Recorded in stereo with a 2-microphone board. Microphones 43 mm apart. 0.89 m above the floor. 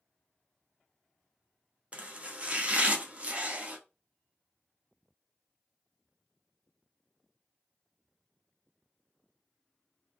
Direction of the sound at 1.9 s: 30° right (ahead or behind).